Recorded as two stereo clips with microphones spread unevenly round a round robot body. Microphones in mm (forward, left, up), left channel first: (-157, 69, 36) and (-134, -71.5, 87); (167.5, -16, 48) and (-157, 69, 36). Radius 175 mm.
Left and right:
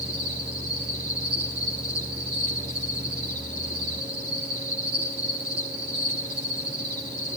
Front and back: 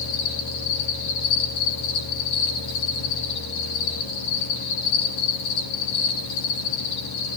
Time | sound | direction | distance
0.0 | an insect | 35° right | 9 m